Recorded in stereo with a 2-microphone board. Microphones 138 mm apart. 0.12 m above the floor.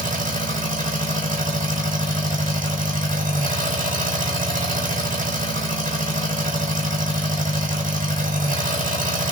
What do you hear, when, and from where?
0.0 s an engine running: 75° right (ahead or behind), 1.4 m